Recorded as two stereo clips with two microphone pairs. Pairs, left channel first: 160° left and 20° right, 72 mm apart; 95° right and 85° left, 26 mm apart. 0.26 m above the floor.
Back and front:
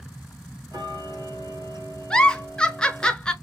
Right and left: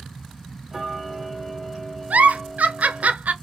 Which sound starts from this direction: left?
A giggle, at 2.1 s.